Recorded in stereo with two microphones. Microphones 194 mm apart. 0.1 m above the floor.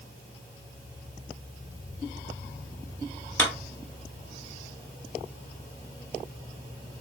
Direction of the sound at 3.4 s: 10° left (ahead or behind).